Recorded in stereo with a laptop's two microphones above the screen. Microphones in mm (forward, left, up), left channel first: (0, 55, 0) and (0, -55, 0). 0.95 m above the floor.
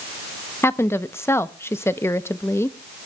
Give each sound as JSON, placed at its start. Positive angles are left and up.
{"t": 0.6, "sound": "a woman speaking", "side_deg": 20, "distance_m": 0.8}